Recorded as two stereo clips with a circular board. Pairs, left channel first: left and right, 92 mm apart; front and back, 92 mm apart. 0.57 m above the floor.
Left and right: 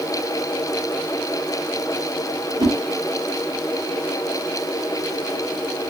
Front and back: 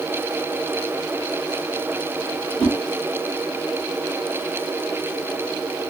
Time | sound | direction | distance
2.6 | a whoosh | 80° right | 1.7 m